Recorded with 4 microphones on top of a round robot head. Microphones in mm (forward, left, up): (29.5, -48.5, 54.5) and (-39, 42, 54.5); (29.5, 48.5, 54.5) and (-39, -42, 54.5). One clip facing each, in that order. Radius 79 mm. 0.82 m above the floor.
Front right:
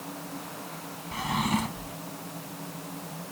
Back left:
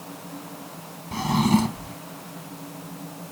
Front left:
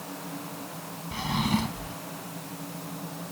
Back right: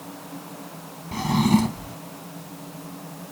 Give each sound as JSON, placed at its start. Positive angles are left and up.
{"t": 1.1, "sound": "a drawer", "azimuth_deg": -175}